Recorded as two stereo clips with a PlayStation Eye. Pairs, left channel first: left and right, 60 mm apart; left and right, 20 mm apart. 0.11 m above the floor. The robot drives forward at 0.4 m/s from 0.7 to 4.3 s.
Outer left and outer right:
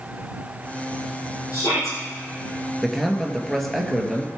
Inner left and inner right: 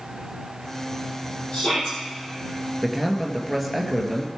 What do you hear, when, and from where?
1.5 s a shout: 60° left (ahead or behind), 3.5 m
2.8 s a man speaking: centre (ahead or behind), 1.9 m